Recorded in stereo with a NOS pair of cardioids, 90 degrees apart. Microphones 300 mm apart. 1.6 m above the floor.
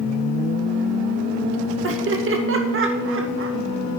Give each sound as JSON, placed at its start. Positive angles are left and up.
{"t": 1.8, "sound": "laughter", "azimuth_deg": -45, "distance_m": 2.0}